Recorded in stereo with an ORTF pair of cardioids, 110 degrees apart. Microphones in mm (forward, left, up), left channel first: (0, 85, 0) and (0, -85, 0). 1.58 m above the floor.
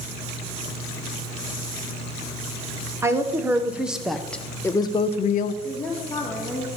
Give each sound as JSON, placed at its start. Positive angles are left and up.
{"t": 3.0, "sound": "a woman speaking", "azimuth_deg": -15, "distance_m": 1.6}
{"t": 5.6, "sound": "a woman speaking", "azimuth_deg": 10, "distance_m": 2.5}